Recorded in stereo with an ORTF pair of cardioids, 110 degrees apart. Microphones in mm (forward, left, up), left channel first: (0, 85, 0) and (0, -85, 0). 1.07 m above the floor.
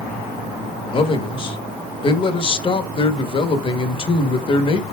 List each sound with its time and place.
0.9 s a man speaking: 30° left, 1.2 m